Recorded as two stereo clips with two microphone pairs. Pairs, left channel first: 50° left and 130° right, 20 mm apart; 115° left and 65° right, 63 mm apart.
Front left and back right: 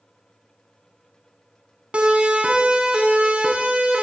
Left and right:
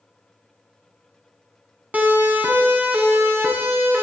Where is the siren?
130° right, 4 m; by 4.0 s 125° right, 6 m.